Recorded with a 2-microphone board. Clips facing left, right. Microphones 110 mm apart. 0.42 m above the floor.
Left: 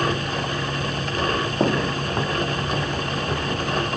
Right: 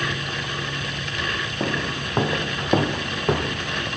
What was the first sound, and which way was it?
Footsteps, 30° left (ahead or behind).